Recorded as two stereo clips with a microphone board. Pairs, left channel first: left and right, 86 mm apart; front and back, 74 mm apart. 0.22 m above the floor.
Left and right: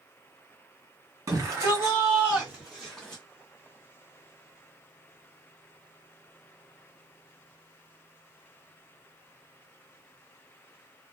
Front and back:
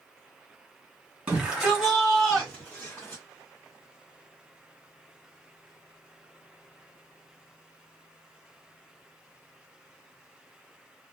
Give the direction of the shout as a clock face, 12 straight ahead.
4 o'clock.